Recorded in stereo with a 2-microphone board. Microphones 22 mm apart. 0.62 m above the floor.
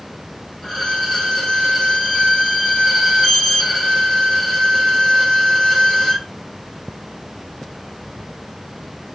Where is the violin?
30° left (ahead or behind), 2.5 m.